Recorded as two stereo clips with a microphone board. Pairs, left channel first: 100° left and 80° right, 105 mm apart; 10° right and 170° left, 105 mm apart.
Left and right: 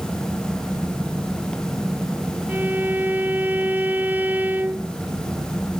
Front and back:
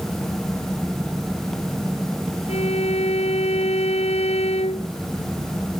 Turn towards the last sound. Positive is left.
turn(degrees=-5)